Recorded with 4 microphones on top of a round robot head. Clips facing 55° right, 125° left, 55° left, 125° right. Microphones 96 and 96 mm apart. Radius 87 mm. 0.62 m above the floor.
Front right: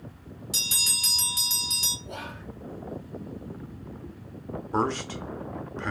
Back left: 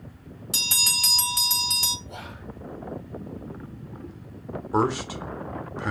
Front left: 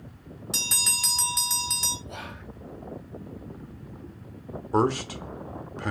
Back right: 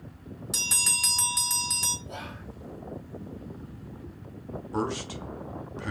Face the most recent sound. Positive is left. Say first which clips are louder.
# back left 3 dB, front left 7 dB
turn(degrees=50)